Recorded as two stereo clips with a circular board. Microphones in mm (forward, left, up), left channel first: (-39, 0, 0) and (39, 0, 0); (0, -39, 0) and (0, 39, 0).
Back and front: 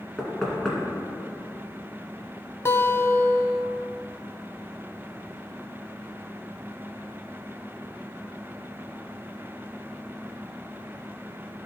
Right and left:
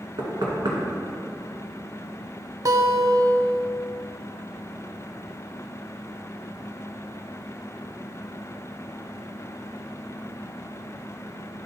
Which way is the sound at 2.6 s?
125° left.